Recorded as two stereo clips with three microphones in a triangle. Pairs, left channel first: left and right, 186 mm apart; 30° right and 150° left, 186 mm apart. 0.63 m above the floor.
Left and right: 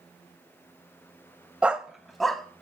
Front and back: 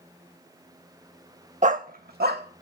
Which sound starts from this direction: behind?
A dog barking, at 1.6 s.